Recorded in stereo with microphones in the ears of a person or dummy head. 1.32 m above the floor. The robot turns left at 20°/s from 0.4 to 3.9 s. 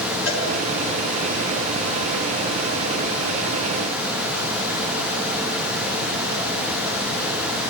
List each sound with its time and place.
0.3 s a cowbell: 75° left (ahead or behind), 2.5 m